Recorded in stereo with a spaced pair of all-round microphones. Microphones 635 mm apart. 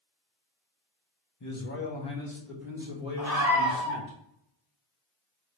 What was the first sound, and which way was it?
A man speaking, 30° left (ahead or behind).